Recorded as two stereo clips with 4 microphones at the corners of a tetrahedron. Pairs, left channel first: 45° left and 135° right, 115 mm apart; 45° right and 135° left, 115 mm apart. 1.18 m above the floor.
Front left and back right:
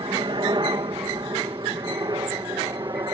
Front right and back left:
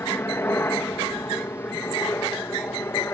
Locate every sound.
0.0 s a helicopter: 110° right; by 3.2 s 100° right